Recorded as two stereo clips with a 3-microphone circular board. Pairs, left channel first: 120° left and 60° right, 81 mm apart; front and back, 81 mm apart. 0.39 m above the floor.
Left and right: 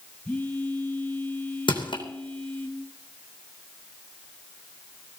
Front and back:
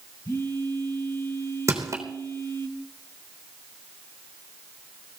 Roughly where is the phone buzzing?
Ahead left.